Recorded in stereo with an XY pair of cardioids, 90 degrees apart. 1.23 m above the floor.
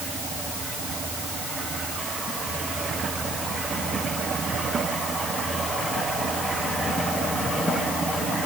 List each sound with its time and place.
Only background noise.